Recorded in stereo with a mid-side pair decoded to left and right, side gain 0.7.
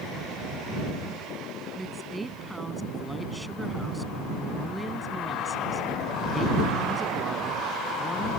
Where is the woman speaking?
5° right.